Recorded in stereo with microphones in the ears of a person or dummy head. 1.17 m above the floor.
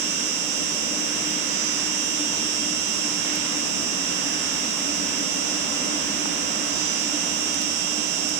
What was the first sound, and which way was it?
An insect, 45° right (ahead or behind).